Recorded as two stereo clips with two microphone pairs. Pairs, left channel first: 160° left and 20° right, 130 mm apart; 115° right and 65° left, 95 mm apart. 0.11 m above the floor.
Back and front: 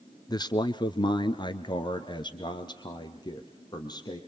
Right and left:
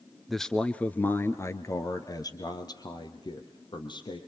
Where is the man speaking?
160° left, 1.4 m; by 4.2 s 145° right, 3.5 m.